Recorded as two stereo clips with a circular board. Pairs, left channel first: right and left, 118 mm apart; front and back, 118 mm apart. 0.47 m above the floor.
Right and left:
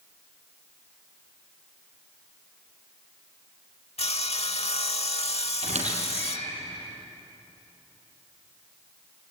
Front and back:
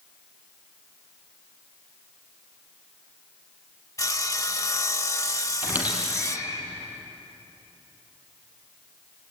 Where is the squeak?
105° left, 5 m.